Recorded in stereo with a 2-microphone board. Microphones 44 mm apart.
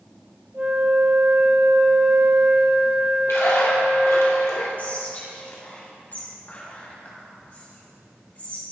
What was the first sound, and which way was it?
A flute, 50° right (ahead or behind).